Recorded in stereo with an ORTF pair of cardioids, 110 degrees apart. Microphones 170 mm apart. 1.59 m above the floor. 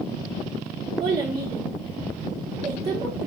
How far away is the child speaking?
About 1.4 m.